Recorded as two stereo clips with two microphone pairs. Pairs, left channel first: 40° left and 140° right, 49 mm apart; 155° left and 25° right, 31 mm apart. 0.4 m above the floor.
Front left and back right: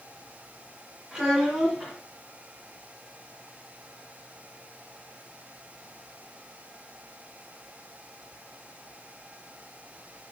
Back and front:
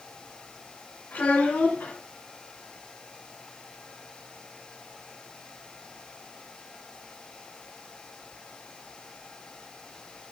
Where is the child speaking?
145° left, 3 m.